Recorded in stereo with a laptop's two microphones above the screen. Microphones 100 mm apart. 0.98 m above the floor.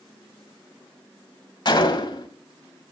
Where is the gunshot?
50° left (ahead or behind), 1.2 m.